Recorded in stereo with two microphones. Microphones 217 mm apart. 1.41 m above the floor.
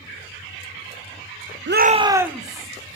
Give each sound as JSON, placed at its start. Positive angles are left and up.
{"t": 1.7, "sound": "a shout", "side_deg": -60, "distance_m": 0.5}